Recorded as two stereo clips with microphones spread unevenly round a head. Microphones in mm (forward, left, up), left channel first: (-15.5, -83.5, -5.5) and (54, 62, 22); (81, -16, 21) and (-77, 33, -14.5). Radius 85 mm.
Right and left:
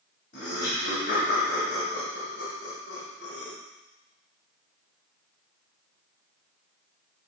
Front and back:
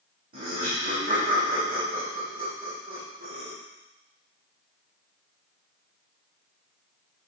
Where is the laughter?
160° right, 3.5 m.